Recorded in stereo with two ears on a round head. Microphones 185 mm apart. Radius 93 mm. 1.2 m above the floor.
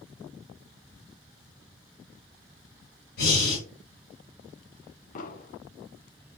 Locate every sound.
3.2 s breathing: 55° left (ahead or behind), 2.5 m
5.2 s an explosion: 40° left (ahead or behind), 0.6 m